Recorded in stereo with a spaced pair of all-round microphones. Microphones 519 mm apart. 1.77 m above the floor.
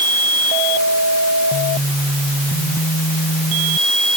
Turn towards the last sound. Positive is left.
No sound to turn to.